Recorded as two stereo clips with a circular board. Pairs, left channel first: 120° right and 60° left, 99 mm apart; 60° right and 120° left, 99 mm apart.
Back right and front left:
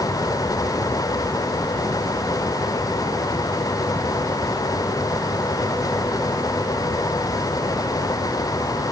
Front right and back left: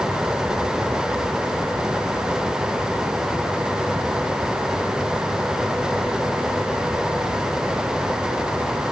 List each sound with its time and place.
Only background noise.